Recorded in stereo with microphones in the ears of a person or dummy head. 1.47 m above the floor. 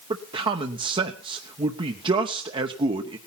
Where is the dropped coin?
No dropped coin in this recording.